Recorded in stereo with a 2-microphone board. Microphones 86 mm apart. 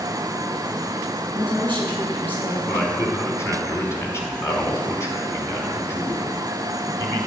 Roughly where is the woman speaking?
Left.